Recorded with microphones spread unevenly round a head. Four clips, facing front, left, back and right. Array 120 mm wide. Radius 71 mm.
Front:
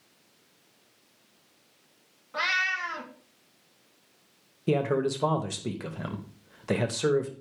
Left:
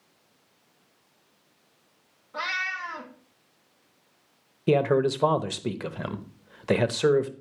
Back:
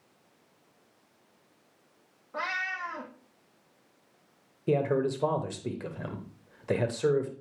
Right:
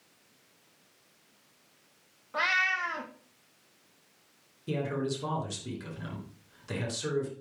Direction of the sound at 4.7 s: 95° left.